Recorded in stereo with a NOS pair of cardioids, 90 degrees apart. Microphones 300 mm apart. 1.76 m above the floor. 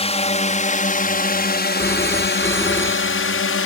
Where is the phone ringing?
10° left.